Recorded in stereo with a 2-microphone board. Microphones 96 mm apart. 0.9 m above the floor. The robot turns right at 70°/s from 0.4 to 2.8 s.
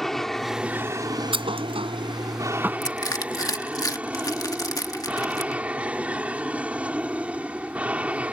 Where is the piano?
I don't hear a piano.